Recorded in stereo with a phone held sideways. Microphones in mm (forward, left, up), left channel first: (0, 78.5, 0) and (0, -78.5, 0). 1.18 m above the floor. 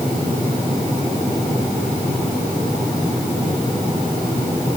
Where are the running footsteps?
No running footsteps in this recording.